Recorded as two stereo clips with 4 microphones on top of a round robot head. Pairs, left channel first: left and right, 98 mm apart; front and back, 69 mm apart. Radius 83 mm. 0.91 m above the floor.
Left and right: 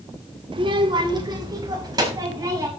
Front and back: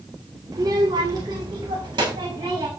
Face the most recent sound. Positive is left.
turn(degrees=-145)